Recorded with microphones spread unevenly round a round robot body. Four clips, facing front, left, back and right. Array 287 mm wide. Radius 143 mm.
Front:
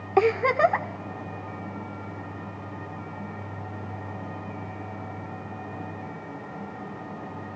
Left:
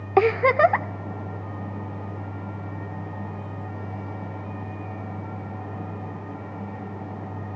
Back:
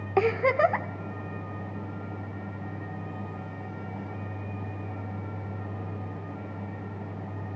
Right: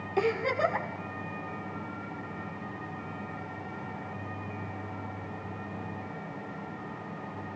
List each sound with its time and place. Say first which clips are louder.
0.2 s a giggle: left 10 dB, front 2 dB; 60° left, 0.9 m